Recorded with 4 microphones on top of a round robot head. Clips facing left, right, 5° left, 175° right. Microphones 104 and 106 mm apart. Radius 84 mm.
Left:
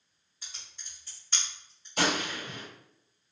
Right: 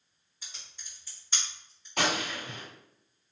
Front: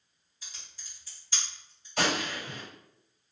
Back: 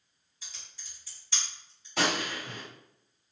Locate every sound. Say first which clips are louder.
0.4 s typing on a keyboard: even, even; 170° right, 1.9 m
2.0 s a gunshot: left 1 dB, even; 150° right, 1.8 m